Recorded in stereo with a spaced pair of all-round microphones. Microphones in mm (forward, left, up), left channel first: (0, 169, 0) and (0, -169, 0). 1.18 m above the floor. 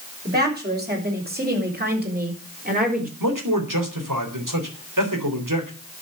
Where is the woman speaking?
30° right (ahead or behind), 6 m; by 3.1 s 25° right (ahead or behind), 4.5 m.